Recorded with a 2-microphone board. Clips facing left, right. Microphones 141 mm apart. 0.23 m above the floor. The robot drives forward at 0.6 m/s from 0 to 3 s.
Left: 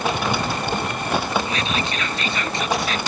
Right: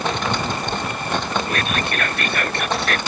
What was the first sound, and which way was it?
Whispering, 60° right (ahead or behind).